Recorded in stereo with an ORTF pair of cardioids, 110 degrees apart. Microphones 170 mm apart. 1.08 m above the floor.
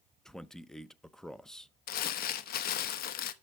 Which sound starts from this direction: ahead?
A man speaking, at 0.2 s.